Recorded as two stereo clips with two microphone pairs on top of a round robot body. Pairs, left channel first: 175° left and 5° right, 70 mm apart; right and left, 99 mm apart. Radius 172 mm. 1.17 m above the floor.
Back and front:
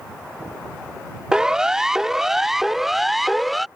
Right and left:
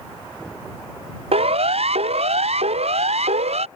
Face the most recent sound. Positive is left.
turn(degrees=85)